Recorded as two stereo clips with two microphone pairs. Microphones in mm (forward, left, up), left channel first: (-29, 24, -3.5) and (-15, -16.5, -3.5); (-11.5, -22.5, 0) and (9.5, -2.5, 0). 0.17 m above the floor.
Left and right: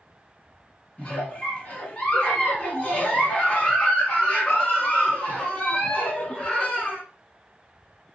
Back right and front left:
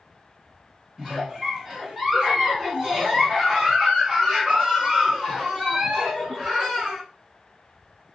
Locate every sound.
1.0 s a giggle: 115° left, 1.1 m